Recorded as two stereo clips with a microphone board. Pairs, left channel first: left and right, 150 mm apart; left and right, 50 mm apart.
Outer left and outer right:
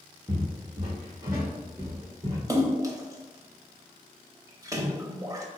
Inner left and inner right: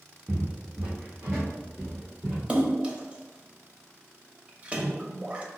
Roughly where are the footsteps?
Right.